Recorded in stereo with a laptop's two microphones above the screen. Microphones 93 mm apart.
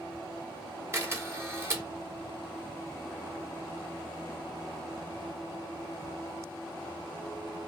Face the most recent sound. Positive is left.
turn(degrees=-25)  # may be behind; listen again after turning